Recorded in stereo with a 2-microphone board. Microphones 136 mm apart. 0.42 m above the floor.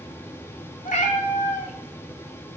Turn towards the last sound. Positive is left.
turn(degrees=60)  # may be behind; listen again after turning